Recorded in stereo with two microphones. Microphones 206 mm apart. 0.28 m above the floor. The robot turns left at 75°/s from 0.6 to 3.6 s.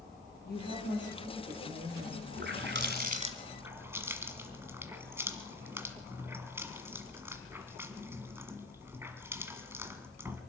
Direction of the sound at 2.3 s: 60° right (ahead or behind).